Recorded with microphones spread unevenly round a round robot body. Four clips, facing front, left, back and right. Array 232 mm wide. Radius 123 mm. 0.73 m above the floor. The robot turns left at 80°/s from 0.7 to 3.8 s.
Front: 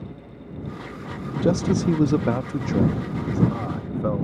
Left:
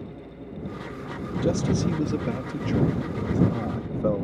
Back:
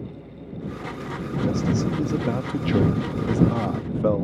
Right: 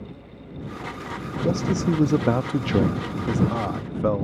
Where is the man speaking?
5° left; by 4.2 s 175° left.